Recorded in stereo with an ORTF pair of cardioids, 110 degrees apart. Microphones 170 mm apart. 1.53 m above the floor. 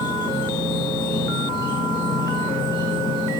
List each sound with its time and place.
0.0 s an insect: 25° left, 4.5 m